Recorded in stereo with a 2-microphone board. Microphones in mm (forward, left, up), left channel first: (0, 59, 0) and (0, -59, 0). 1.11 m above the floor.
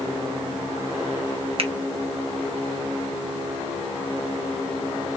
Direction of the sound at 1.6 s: 55° right (ahead or behind).